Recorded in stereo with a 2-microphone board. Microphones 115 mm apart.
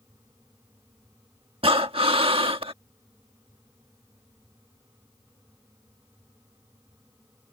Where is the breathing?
55° right (ahead or behind).